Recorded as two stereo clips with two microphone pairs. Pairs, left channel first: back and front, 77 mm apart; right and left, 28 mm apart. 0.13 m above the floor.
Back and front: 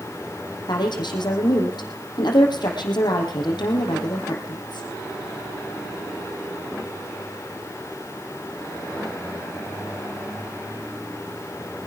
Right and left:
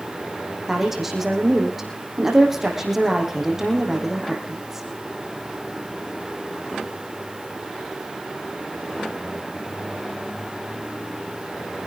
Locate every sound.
0.7 s a woman speaking: 170° left, 5.5 m